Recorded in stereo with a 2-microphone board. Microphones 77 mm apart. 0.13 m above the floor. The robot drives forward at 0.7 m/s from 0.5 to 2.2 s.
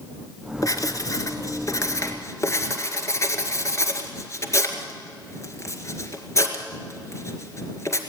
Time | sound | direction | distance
0.6 | writing | 45° left (ahead or behind) | 2.0 m